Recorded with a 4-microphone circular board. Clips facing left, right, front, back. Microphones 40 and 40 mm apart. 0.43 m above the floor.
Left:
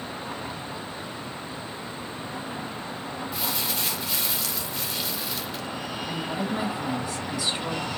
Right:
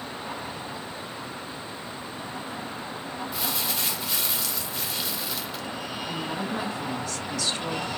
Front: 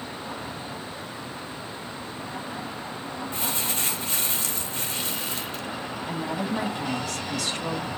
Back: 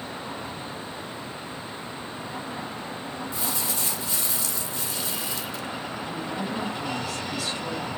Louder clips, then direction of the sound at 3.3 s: Even, front 2 dB; straight ahead.